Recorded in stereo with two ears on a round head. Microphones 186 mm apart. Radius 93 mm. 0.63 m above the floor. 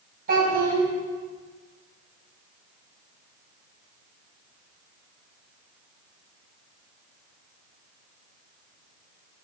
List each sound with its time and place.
0.3 s a child speaking: 45° right (ahead or behind), 3 m